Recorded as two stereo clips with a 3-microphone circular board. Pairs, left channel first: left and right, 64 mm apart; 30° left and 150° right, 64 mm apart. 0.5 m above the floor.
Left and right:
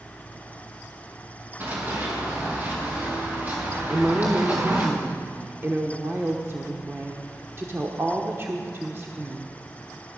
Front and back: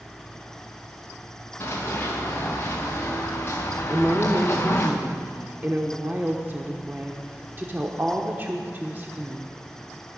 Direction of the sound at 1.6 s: 30° right.